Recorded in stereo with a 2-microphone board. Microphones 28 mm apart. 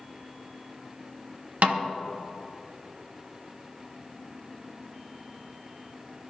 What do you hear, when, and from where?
1.6 s a snare drum: 65° right (ahead or behind), 1.0 m